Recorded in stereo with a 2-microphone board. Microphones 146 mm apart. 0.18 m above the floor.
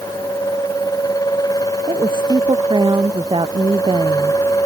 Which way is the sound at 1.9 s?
30° right (ahead or behind).